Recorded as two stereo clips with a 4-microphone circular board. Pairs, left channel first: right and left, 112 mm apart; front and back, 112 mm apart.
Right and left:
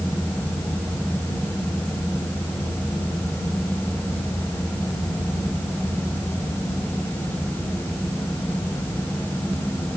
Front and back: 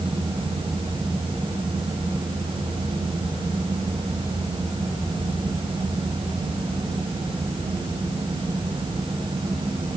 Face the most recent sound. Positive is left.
No sound to turn to.